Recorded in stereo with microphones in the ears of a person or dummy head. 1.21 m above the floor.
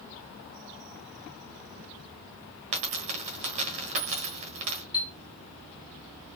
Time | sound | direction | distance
2.7 | a dropped coin | 35° right (ahead or behind) | 1.3 m
4.9 | a chime | 10° right (ahead or behind) | 0.9 m